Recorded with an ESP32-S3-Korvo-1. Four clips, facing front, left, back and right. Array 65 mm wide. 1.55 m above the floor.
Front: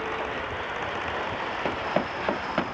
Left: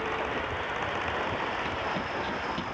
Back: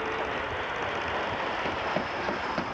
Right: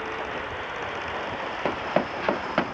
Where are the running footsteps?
65° right; by 2.7 s 70° right.